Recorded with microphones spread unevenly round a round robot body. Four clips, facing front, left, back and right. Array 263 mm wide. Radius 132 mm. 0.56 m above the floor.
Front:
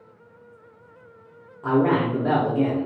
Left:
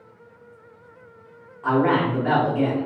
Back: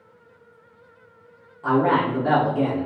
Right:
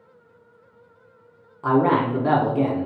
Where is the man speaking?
60° right, 0.8 m.